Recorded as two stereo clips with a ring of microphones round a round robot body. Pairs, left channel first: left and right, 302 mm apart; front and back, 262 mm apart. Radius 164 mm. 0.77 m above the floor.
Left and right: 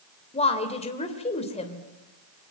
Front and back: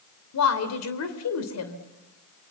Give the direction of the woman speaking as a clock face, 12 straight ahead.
11 o'clock.